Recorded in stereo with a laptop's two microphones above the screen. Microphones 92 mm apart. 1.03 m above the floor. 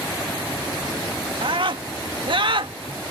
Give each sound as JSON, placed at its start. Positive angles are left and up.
{"t": 1.4, "sound": "a scream", "side_deg": -65}